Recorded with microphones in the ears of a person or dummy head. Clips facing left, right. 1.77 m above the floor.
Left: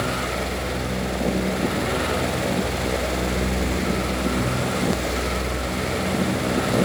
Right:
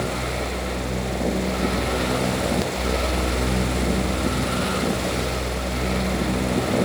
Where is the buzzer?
No buzzer in this recording.